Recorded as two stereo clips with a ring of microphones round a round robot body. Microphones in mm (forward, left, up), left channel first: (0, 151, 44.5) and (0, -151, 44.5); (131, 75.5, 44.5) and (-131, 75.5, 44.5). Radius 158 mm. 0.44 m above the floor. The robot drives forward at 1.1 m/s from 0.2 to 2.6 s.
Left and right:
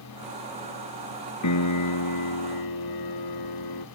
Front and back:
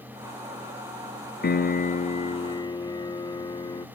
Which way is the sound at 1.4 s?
55° left.